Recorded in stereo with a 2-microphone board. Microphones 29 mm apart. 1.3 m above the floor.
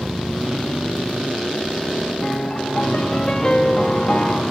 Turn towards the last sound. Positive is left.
turn(degrees=20)  # may be behind; listen again after turning